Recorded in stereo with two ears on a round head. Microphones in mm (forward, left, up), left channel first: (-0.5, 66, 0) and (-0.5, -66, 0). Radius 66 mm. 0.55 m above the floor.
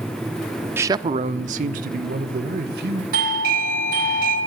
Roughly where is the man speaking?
Centre.